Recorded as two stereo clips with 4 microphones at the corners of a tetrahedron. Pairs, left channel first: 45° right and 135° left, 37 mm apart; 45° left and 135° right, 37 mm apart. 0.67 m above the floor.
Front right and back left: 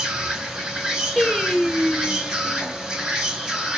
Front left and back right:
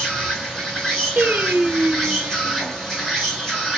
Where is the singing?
120° right, 0.8 m.